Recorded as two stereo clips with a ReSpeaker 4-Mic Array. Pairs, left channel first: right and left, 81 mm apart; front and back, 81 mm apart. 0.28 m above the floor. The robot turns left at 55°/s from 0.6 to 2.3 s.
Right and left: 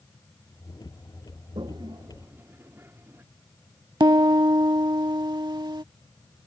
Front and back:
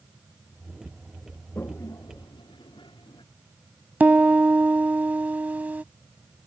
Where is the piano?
110° left.